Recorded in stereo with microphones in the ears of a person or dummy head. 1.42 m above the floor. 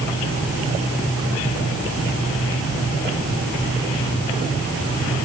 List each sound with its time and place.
Only background noise.